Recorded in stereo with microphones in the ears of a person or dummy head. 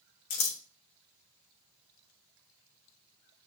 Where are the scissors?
65° left (ahead or behind), 0.9 m.